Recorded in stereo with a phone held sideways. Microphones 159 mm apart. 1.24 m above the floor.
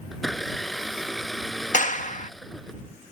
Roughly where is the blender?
Centre.